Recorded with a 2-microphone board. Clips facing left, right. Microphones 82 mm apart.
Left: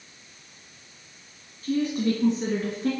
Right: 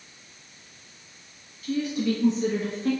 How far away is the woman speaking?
About 1.6 m.